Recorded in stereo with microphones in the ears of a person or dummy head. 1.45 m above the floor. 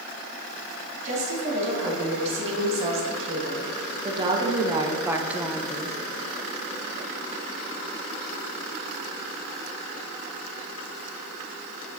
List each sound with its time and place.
1.1 s a woman speaking: 50° right (ahead or behind), 3 m; by 6.0 s 5° left (ahead or behind), 0.9 m